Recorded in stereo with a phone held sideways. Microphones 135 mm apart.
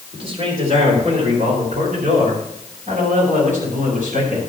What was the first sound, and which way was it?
A man speaking, 45° right (ahead or behind).